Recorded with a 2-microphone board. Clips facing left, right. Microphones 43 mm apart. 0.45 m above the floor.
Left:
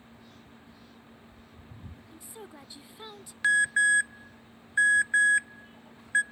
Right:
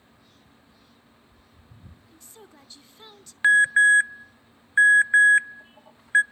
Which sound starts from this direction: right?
An alarm, at 3.4 s.